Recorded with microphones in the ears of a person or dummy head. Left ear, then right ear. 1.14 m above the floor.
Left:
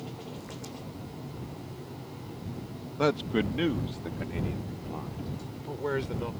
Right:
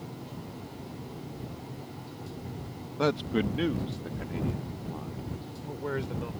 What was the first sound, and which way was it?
A man speaking, 5° left (ahead or behind).